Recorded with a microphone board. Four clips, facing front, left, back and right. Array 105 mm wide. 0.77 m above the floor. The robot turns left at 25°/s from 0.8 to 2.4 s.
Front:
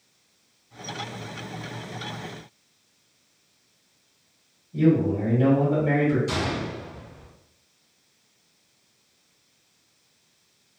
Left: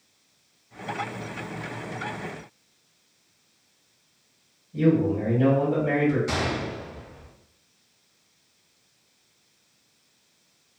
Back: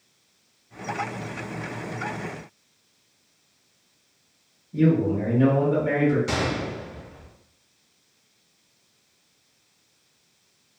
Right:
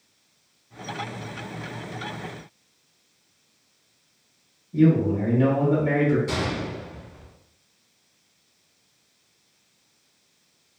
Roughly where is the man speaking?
Behind right.